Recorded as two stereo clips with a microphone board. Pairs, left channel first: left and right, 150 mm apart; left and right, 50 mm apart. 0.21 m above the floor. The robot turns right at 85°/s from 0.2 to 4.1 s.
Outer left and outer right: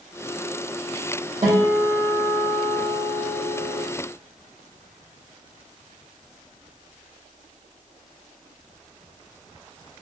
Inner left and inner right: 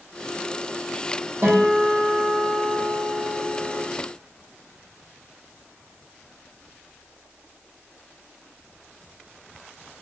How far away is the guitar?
About 2 m.